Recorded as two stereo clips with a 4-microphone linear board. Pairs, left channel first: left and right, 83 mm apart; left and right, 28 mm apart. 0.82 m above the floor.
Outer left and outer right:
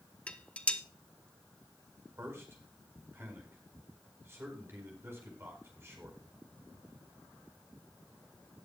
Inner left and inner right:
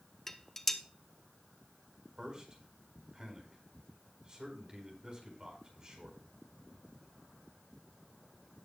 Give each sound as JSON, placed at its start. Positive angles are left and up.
{"t": 0.3, "sound": "dishes clattering", "side_deg": 15, "distance_m": 0.9}
{"t": 2.2, "sound": "a man speaking", "side_deg": -30, "distance_m": 4.5}